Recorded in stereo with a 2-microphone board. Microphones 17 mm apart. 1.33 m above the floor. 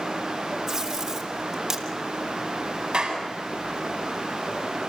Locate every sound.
0.7 s tape being pulled: 25° right (ahead or behind), 3 m
2.9 s a clap: 50° right (ahead or behind), 8 m